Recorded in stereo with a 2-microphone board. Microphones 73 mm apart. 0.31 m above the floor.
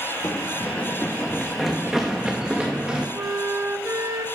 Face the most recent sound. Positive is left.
turn(degrees=-35)  # may be behind; listen again after turning